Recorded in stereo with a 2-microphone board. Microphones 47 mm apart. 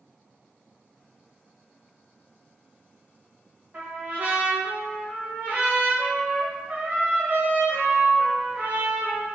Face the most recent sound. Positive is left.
turn(degrees=-45)  # may be behind; listen again after turning